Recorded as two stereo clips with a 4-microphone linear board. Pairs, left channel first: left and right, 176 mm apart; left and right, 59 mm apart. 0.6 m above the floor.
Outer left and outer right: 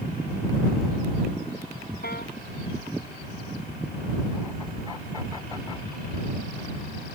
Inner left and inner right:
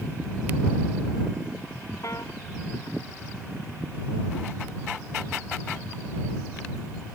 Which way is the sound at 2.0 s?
65° left (ahead or behind).